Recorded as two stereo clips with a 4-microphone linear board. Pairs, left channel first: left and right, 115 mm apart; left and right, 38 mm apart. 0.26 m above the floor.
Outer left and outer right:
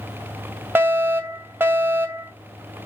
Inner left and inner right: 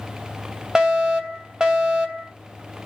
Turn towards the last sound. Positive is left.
turn(degrees=-20)  # may be behind; listen again after turning